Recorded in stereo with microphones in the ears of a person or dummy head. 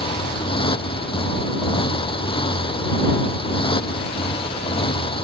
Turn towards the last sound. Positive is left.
turn(degrees=30)  # may be behind; listen again after turning